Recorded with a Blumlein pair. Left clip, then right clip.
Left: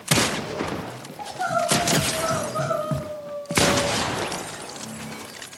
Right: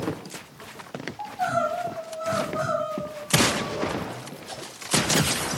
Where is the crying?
5° left, 1.8 m.